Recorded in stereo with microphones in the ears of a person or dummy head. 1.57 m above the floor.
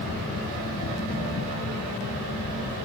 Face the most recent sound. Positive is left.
turn(degrees=70)  # may be behind; listen again after turning